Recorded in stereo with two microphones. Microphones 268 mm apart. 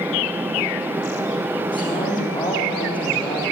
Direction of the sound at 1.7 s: 15° left (ahead or behind).